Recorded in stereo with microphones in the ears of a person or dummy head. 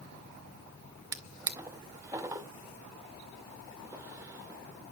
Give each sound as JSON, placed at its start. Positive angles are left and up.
{"t": 1.1, "sound": "a drawer", "side_deg": -15, "distance_m": 0.6}